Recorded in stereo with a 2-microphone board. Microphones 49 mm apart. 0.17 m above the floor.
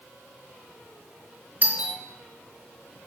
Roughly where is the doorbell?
Right.